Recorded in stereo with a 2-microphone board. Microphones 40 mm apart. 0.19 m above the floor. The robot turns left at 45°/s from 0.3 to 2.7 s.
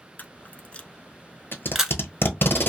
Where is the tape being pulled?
65° left (ahead or behind), 1.0 m; by 2.7 s 55° left (ahead or behind), 1.0 m.